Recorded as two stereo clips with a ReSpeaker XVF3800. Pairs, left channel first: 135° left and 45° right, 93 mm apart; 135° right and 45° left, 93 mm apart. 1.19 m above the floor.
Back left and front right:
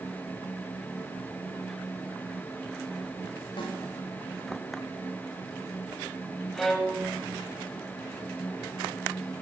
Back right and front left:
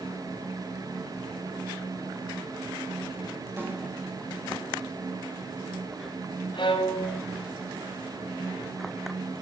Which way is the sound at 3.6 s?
110° left.